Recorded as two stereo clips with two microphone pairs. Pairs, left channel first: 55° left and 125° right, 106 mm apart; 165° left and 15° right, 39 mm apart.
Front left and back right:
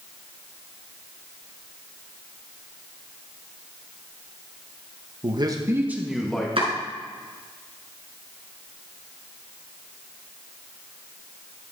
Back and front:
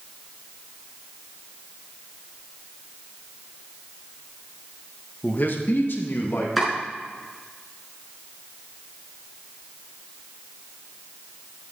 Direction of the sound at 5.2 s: 155° right.